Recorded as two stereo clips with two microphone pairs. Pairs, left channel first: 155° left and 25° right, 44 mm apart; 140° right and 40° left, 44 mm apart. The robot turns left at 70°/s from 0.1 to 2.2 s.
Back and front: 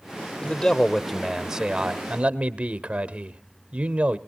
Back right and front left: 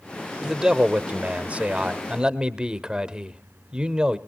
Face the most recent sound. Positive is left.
turn(degrees=-5)